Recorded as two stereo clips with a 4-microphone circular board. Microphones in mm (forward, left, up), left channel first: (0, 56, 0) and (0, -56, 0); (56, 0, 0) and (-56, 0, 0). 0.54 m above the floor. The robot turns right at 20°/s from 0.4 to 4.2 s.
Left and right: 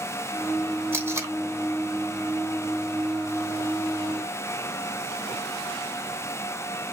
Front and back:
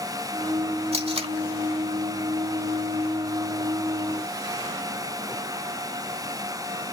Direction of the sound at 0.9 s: 160° right.